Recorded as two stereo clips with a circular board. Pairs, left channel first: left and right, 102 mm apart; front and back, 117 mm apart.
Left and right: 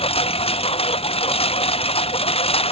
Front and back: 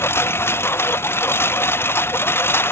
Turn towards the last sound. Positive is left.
turn(degrees=70)